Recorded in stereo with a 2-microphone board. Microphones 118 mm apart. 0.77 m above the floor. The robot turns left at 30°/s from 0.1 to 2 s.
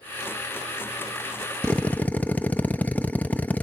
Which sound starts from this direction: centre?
A drill, at 1.6 s.